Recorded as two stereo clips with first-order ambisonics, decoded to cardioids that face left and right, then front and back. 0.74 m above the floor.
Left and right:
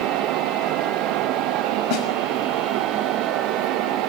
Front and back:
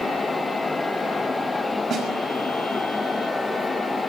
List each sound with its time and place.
1.9 s a snare drum: 120° left, 5.5 m